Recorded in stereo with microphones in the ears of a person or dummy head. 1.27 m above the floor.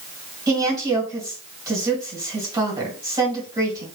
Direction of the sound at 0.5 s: 15° right (ahead or behind).